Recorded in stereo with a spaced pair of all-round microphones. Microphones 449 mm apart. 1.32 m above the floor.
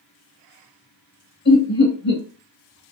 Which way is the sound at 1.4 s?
75° left (ahead or behind).